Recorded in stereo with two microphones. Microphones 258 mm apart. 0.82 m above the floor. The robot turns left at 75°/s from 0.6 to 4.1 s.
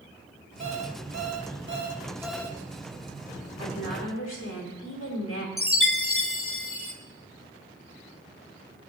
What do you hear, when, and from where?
0.6 s an alarm clock: 50° right, 0.9 m; by 2.6 s 160° left, 0.9 m
3.6 s a woman speaking: 115° left, 3.5 m; by 5.5 s 80° left, 3.5 m
5.6 s a chime: 55° left (ahead or behind), 0.9 m